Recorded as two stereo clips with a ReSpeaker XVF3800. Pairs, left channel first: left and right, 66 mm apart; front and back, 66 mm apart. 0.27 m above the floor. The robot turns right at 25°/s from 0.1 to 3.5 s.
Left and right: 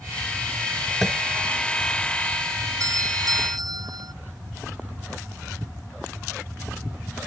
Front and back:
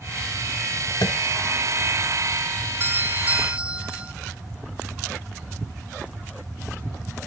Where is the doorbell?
125° right; by 4.1 s 110° right.